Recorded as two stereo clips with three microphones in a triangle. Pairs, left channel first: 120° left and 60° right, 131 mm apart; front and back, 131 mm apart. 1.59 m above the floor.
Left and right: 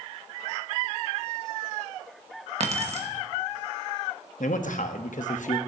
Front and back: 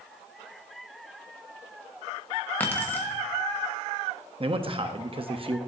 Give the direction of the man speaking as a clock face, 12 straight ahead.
8 o'clock.